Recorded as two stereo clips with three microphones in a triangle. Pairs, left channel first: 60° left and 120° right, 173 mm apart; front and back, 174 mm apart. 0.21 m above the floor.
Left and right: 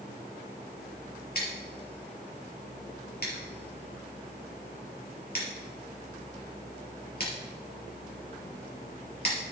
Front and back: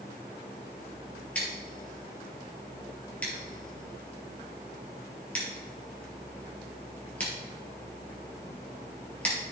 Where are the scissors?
80° left, 3 m.